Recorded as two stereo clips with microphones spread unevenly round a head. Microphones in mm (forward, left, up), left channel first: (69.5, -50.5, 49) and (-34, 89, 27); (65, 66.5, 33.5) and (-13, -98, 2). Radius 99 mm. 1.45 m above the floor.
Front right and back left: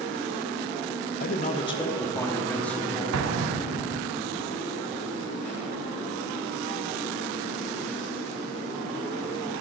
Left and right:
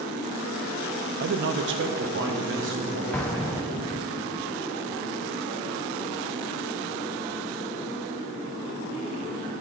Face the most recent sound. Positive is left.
turn(degrees=145)